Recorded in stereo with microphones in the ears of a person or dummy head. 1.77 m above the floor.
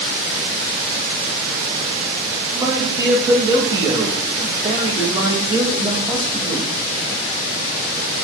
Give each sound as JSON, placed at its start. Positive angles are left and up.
{"t": 2.5, "sound": "a man speaking", "side_deg": -10, "distance_m": 3.0}